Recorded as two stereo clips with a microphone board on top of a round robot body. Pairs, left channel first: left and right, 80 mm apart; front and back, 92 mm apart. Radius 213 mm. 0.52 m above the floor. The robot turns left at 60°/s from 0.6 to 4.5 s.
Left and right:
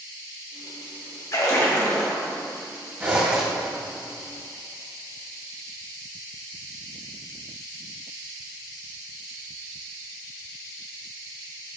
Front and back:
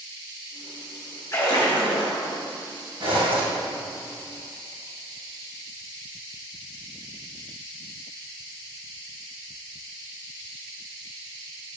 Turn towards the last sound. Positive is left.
turn(degrees=125)